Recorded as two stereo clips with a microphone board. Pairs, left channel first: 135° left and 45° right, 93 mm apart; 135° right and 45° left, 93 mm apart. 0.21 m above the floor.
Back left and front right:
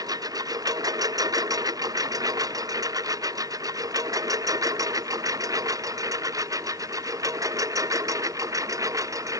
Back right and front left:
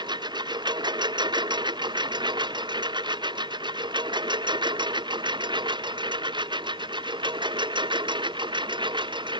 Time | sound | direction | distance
0.0 | a lawn mower | 5° left | ?